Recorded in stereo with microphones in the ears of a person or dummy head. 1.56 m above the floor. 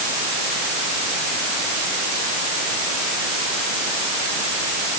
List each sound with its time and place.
Only background noise.